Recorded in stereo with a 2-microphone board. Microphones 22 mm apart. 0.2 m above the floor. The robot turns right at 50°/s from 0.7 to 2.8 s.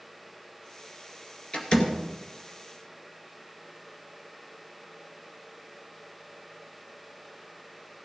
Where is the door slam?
45° left (ahead or behind), 1.9 m; by 2.0 s 25° left (ahead or behind), 1.9 m.